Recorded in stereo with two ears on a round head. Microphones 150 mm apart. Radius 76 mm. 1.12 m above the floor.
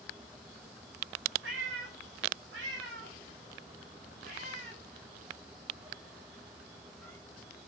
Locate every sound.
1.4 s a cat meowing: 80° right, 2.5 m; by 7.2 s 5° left (ahead or behind), 1.9 m